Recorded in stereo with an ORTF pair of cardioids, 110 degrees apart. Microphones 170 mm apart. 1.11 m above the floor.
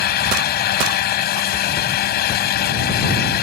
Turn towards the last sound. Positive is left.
turn(degrees=70)